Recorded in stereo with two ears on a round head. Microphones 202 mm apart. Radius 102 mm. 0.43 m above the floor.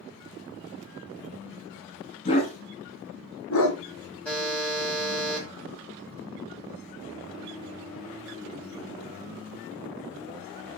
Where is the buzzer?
5° left (ahead or behind), 2.0 m.